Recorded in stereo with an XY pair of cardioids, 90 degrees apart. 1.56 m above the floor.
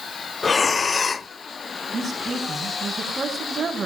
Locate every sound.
0.4 s breathing: 45° left, 0.6 m
1.9 s a woman speaking: 35° right, 8 m